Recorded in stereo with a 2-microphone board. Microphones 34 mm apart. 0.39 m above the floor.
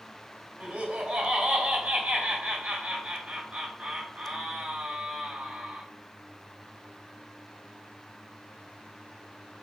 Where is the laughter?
40° right (ahead or behind), 1.6 m.